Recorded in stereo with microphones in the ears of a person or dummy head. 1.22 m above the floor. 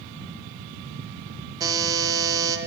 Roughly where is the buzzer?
Centre.